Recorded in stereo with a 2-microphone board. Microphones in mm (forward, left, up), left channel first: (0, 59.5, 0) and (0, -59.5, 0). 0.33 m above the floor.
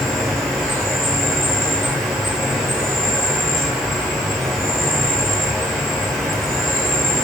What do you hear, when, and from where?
0.0 s an insect: centre (ahead or behind), 1.1 m